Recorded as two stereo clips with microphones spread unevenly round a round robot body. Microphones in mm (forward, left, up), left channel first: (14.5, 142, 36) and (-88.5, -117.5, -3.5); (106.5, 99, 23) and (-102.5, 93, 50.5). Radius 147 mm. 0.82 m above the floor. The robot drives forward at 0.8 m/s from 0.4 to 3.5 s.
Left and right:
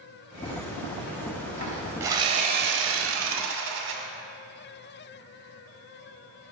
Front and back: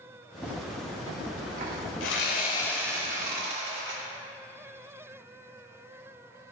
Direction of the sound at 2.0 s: 30° right.